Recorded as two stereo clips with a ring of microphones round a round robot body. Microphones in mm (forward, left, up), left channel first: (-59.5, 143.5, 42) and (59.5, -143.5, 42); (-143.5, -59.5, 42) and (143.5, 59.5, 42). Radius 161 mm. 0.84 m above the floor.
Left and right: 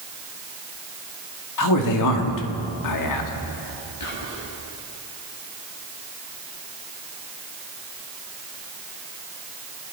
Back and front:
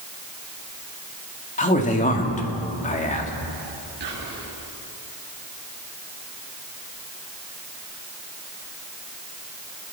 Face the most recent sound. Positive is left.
turn(degrees=85)